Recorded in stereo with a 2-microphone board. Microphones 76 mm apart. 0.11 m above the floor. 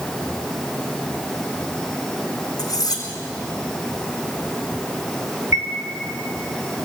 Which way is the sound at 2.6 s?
55° left (ahead or behind).